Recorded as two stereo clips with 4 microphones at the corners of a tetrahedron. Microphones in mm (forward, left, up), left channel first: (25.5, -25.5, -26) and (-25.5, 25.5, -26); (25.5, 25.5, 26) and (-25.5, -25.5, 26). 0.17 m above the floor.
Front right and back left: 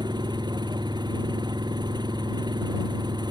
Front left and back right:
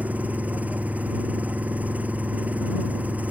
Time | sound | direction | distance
0.0 | an engine running | 155° left | ?